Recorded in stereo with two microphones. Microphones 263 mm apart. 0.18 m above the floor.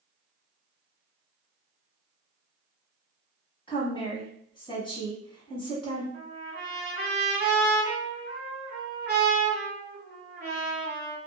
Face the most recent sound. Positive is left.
turn(degrees=-35)  # may be behind; listen again after turning